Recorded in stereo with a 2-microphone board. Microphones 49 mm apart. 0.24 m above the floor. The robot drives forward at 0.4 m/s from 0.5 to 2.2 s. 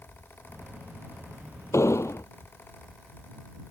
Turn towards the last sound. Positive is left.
turn(degrees=80)